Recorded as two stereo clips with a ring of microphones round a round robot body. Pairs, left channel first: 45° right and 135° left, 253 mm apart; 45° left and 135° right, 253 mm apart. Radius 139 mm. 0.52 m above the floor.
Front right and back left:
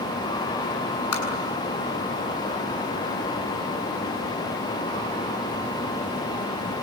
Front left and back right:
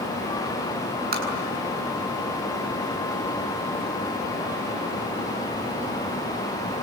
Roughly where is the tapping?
Right.